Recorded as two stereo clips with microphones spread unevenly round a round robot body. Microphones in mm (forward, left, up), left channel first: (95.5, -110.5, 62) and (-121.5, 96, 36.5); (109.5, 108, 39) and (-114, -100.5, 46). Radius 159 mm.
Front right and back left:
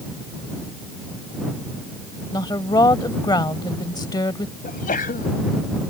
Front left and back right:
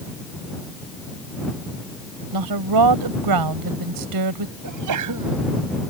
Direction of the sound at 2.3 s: 120° right.